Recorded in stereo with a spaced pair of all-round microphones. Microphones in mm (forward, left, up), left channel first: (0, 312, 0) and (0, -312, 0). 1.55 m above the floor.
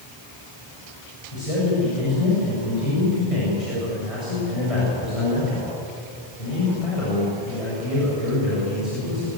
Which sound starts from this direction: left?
A man speaking, at 1.3 s.